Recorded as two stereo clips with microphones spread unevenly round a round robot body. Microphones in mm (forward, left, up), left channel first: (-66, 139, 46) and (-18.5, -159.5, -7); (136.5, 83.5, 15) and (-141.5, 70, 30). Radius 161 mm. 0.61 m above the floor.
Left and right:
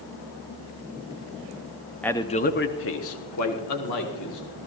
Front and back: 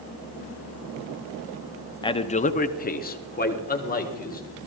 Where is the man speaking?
10° right, 0.7 m; by 4.4 s 60° left, 2 m.